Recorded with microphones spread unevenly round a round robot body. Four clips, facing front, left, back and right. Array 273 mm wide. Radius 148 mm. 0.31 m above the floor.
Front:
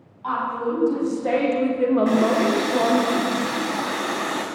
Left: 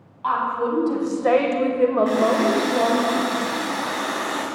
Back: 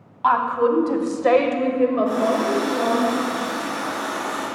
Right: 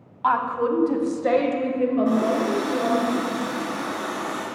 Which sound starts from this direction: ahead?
A running tap, at 2.0 s.